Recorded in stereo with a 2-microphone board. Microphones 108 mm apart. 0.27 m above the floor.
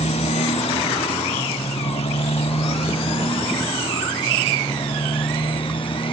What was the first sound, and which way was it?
A motorcycle, 80° left.